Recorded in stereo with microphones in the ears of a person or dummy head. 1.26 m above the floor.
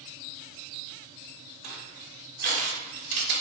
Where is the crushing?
50° right (ahead or behind), 0.9 m.